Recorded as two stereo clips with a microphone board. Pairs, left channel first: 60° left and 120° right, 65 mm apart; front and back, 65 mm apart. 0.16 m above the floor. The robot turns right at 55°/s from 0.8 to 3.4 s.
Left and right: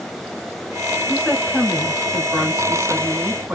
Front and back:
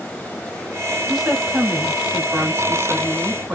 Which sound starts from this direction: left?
A woman speaking, at 1.1 s.